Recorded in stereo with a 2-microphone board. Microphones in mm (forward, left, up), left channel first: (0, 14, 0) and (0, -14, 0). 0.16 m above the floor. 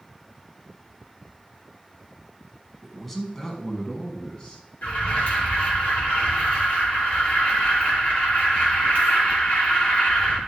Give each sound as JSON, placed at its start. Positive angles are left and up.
{"t": 2.8, "sound": "a man speaking", "side_deg": 0, "distance_m": 1.6}
{"t": 4.8, "sound": "an alarm", "side_deg": 55, "distance_m": 3.5}